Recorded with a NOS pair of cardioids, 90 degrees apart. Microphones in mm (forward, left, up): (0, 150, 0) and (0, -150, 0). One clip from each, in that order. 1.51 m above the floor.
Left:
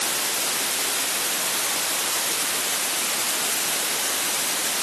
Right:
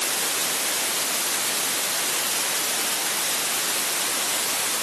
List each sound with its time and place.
Only background noise.